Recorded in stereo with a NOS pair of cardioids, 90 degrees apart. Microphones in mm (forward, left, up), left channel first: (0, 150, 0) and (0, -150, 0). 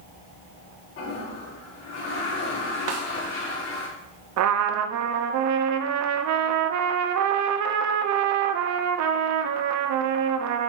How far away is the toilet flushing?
About 4 m.